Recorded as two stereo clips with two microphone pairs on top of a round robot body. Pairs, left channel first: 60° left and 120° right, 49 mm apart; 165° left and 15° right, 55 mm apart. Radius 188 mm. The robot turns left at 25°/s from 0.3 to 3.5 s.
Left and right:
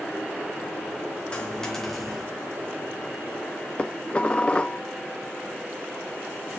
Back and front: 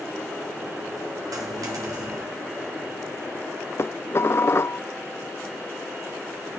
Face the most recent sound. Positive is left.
turn(degrees=125)